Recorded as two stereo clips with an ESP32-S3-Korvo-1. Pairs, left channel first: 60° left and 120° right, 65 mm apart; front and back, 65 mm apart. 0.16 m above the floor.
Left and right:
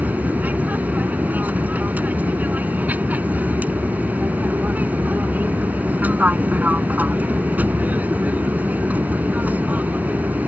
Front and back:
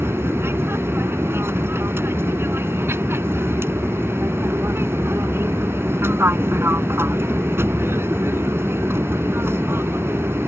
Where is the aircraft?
170° right.